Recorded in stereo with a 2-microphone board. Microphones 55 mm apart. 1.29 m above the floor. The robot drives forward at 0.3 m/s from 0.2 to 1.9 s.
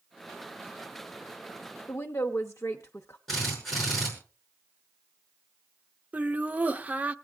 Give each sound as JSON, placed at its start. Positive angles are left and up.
{"t": 1.9, "sound": "a woman speaking", "side_deg": 65, "distance_m": 0.7}
{"t": 3.3, "sound": "a drill", "side_deg": 0, "distance_m": 6.0}
{"t": 6.1, "sound": "laughter", "side_deg": -30, "distance_m": 0.5}